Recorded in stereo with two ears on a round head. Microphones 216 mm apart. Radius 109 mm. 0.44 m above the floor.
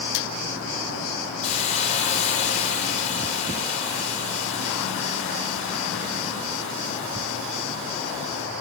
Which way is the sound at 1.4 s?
30° left (ahead or behind).